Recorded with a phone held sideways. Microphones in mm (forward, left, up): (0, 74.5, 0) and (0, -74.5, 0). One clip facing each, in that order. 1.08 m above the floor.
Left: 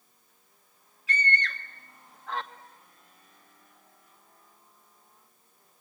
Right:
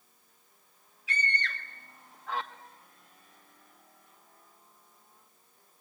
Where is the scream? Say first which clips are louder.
Left 4 dB; centre (ahead or behind), 1.5 m.